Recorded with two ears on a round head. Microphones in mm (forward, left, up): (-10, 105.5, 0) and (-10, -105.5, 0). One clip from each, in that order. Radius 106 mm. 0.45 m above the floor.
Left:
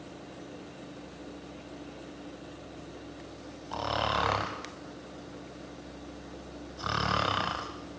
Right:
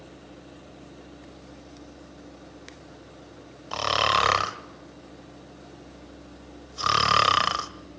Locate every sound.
3.7 s snoring: 60° right (ahead or behind), 1.1 m